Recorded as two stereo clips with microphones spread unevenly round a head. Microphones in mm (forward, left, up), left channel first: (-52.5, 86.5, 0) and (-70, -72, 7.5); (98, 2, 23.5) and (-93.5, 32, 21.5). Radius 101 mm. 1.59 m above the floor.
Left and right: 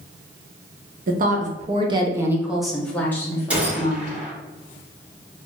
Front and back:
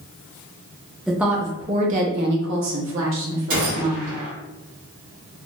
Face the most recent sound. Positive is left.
turn(degrees=-170)